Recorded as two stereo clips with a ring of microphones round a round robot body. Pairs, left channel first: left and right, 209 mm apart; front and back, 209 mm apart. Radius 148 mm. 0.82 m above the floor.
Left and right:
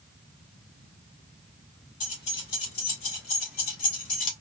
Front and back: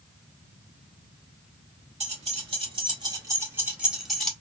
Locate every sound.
2.0 s keys jangling: 125° left, 2.5 m; by 4.3 s 85° left, 1.8 m